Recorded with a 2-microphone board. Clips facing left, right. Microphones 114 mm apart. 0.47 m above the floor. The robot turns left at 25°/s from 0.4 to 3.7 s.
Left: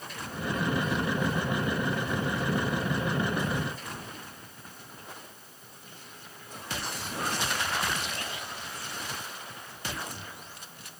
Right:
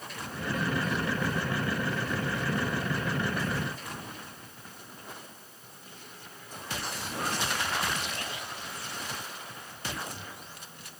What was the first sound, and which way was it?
Only background noise.